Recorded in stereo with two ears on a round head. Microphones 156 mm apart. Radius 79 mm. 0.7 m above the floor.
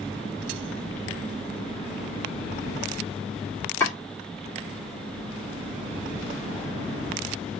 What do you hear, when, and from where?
3.8 s chopping: 15° left (ahead or behind), 1.5 m